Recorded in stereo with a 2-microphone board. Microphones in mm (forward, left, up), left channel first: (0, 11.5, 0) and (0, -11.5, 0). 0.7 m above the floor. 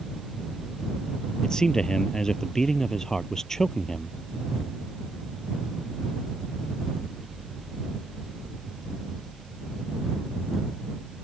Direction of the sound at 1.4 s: 30° left (ahead or behind).